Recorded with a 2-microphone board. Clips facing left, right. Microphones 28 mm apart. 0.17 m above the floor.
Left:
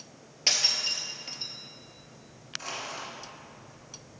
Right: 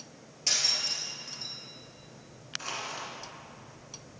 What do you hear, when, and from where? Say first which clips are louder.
0.5 s breaking glass: left 2 dB; 45° left (ahead or behind), 1.3 m
2.6 s crushing: even; 10° right (ahead or behind), 2 m